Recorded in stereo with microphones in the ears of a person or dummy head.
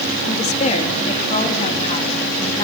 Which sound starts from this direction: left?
A woman speaking, at 0.2 s.